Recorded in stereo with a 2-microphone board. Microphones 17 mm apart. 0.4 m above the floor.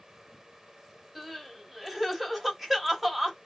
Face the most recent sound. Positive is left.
turn(degrees=-15)  # may be behind; listen again after turning